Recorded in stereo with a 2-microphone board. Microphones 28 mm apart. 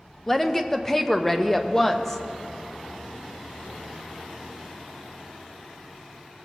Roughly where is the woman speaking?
Centre.